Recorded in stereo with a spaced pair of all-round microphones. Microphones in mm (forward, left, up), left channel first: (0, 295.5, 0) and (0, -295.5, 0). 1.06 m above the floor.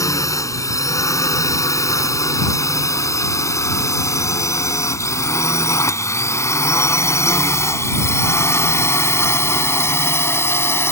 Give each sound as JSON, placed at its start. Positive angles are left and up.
{"t": 0.0, "sound": "a drone", "side_deg": 5}